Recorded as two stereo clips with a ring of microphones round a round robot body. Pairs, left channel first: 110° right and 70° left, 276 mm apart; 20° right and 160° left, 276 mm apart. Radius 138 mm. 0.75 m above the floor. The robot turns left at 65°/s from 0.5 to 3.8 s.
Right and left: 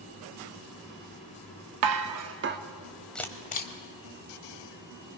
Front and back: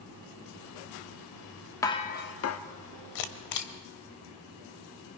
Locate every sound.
1.8 s dishes clattering: 55° left, 0.9 m; by 2.6 s 5° left, 0.9 m
3.1 s a camera shutter: 25° right, 1.2 m; by 3.7 s 60° right, 1.2 m